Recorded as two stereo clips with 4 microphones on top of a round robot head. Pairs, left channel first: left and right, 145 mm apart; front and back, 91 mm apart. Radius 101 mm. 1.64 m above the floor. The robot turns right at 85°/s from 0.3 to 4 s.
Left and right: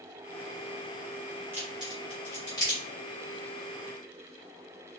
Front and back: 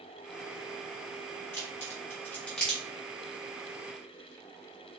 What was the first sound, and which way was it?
A crack, 35° right.